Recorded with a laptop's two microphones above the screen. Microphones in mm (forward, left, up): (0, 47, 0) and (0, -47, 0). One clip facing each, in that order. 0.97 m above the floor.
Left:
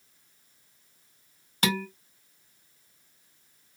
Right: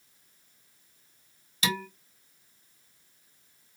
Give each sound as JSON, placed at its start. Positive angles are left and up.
{"t": 1.6, "sound": "dishes clattering", "side_deg": 55, "distance_m": 0.5}